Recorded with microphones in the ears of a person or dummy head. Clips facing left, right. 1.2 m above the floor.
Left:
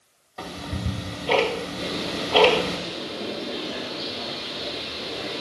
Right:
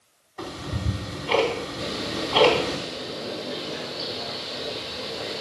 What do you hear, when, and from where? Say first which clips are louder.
0.4 s ticking: even; 60° left (ahead or behind), 2.5 m
1.8 s a bird: left 1 dB; 55° left (ahead or behind), 2.5 m